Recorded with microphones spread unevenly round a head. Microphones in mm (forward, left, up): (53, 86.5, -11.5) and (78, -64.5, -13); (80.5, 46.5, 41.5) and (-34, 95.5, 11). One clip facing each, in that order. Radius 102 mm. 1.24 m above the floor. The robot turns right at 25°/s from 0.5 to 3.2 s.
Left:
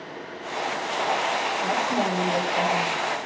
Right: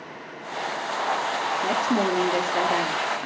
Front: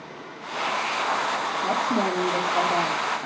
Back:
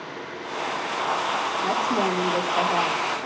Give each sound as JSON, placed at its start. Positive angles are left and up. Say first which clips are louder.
{"t": 1.6, "sound": "a woman speaking", "louder": "right 3 dB, even", "azimuth_deg": -115, "distance_m": 3.0}